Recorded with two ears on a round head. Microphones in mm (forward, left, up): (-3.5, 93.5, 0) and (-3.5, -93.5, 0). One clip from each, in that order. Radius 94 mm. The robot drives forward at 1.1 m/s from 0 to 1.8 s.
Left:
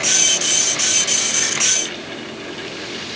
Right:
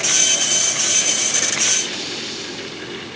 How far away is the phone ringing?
I don't hear a phone ringing.